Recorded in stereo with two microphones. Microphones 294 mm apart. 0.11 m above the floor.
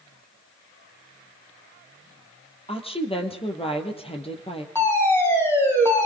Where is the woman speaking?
20° left (ahead or behind), 3 m.